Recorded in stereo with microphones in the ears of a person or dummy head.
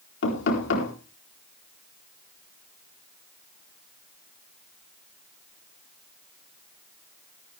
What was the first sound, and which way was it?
Knocking, 75° left (ahead or behind).